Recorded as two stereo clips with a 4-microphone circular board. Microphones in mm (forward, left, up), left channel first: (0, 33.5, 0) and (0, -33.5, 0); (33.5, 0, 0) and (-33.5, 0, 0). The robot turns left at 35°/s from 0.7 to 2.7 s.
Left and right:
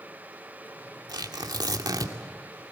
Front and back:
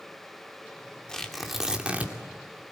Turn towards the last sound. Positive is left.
turn(degrees=-135)